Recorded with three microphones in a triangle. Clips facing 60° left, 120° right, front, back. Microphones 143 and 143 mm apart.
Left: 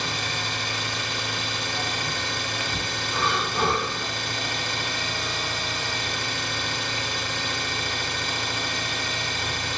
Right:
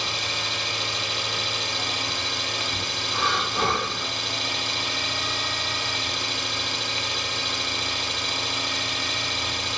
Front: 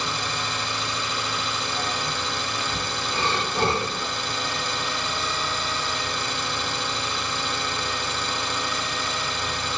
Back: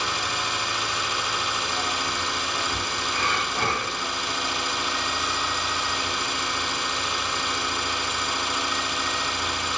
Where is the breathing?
30° right, 0.7 m.